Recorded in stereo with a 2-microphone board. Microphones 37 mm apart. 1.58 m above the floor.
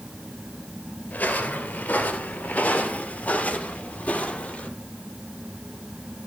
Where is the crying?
I don't hear crying.